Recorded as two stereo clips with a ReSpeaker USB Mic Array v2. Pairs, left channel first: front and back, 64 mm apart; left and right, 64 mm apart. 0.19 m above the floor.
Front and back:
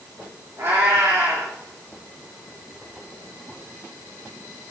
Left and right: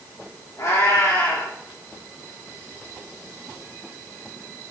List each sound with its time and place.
0.6 s a cat meowing: 130° left, 5.5 m